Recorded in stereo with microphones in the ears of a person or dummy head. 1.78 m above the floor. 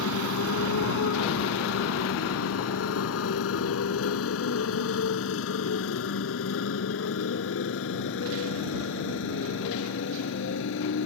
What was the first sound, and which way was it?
A motorcycle, 75° left (ahead or behind).